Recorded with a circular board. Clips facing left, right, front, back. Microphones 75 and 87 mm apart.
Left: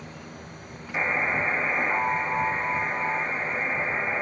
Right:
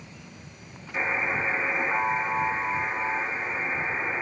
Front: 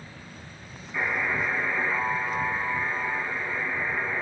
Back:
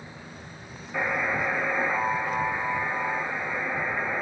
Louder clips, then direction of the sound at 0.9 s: Left 2 dB, back 1 dB; 145° left.